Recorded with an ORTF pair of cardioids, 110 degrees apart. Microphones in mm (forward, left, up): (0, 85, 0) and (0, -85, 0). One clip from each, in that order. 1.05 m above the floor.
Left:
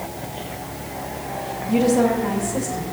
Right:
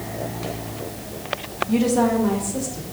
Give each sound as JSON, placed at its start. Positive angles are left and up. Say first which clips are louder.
{"t": 1.7, "sound": "a woman speaking", "louder": "left 2 dB", "azimuth_deg": -5, "distance_m": 1.6}